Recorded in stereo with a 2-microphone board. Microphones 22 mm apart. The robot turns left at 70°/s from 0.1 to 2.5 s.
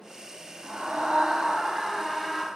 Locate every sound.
0.6 s a scream: 70° right, 3.5 m; by 2.5 s 160° left, 3.5 m